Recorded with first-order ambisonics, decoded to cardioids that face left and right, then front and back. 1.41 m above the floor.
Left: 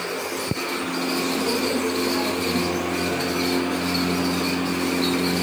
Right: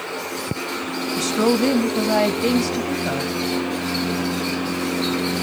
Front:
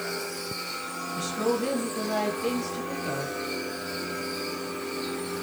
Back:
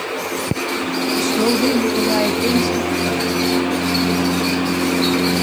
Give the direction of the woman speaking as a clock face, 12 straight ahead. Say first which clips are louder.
Right 7 dB, back 8 dB; 4 o'clock.